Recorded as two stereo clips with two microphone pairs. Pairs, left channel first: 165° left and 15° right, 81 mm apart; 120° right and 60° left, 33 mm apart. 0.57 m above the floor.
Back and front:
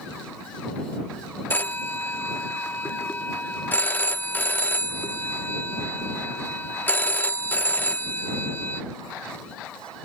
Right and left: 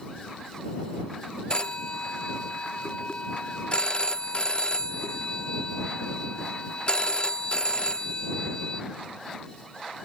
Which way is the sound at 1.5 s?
145° right.